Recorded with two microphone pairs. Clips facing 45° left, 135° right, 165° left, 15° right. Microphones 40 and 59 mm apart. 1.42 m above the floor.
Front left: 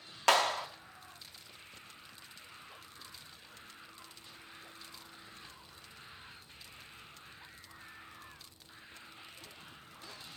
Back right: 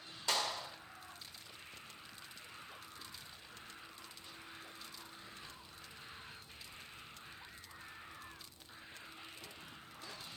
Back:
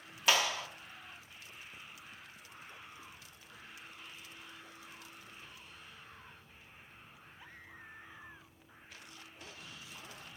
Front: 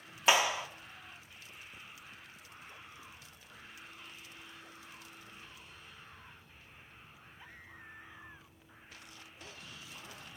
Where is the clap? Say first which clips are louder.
Front left 10 dB, front 3 dB; 50° left, 1.1 m.